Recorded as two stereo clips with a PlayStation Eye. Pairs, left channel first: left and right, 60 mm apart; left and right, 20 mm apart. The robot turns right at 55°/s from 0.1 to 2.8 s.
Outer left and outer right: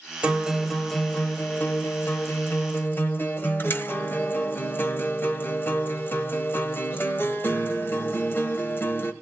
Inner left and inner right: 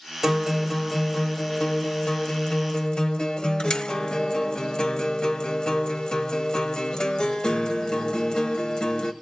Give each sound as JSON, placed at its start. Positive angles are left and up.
{"t": 0.2, "sound": "a guitar", "azimuth_deg": -30, "distance_m": 1.5}